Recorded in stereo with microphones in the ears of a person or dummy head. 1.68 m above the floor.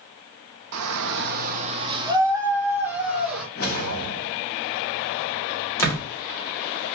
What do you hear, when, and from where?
0.7 s a shout: 85° right, 0.6 m; by 3.5 s centre (ahead or behind), 1.7 m
3.5 s a whoosh: 50° left (ahead or behind), 1.0 m
5.8 s a door slam: 15° left (ahead or behind), 1.1 m